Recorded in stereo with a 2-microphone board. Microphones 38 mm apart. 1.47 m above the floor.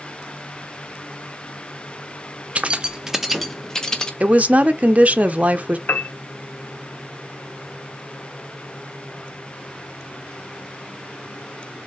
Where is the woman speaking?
40° right (ahead or behind), 0.9 m.